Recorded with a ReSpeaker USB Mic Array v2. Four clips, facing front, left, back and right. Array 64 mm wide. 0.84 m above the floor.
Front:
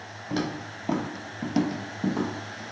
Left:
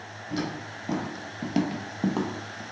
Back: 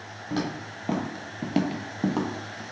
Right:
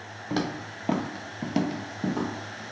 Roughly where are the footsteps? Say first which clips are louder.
Right 2 dB, even; right.